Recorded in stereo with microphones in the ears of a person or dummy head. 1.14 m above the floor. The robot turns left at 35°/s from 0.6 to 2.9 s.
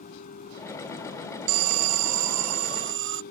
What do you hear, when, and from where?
0.0 s a vehicle: 140° left; by 3.3 s 60° left
1.5 s an alarm: 80° right; by 3.2 s 130° right